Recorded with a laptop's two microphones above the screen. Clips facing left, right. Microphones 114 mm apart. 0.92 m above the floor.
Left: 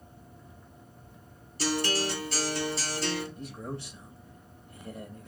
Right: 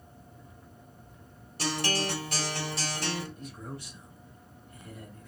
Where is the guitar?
70° right (ahead or behind), 2.0 m.